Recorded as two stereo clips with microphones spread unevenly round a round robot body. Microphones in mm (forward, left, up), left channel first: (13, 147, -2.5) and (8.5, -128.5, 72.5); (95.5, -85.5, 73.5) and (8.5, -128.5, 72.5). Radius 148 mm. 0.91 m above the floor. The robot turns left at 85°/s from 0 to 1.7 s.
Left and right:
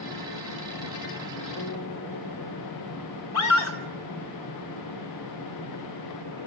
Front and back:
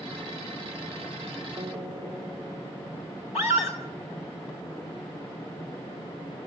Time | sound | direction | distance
1.6 | a guitar | 145° left | 4 m
3.3 | a scream | 65° left | 5.5 m